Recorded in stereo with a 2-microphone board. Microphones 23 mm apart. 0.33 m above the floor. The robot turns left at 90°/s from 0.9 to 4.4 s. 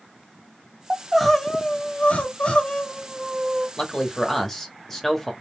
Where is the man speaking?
85° left, 0.9 m; by 5.3 s 25° left, 0.9 m.